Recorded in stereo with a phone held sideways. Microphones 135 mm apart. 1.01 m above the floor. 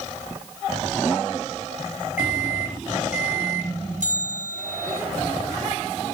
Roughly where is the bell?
Right.